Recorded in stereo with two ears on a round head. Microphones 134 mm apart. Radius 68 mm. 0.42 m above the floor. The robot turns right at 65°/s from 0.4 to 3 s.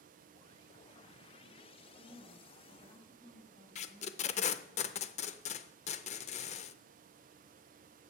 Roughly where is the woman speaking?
Ahead right.